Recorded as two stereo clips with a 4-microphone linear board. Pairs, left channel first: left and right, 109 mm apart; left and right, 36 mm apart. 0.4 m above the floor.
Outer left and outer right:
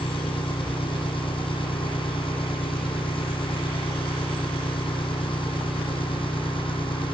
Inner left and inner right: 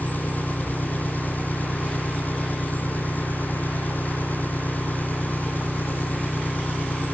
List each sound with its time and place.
0.0 s an engine running: 50° left (ahead or behind), 2.0 m